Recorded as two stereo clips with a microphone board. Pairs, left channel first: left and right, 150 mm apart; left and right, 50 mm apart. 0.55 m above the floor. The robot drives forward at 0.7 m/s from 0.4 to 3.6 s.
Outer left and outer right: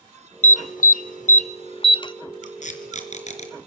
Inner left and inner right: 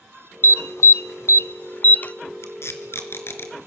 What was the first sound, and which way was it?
An alarm, 50° left (ahead or behind).